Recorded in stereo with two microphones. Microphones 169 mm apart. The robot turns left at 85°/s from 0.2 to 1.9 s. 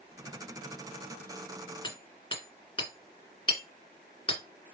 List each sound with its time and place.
1.8 s hammering: 30° left (ahead or behind), 2 m; by 4.4 s 35° left (ahead or behind), 2 m